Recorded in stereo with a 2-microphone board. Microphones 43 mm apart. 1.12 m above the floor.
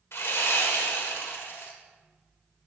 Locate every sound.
0.1 s sawing: 65° left (ahead or behind), 1.4 m